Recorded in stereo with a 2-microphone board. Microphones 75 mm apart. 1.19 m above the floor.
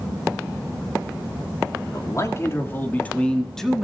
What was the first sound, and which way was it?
A man speaking, 45° left (ahead or behind).